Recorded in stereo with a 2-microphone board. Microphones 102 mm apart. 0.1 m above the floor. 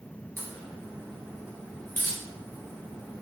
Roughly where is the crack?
Left.